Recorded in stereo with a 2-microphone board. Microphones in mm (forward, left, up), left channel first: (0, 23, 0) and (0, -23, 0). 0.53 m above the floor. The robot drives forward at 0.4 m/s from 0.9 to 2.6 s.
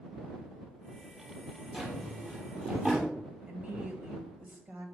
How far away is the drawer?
About 4.5 m.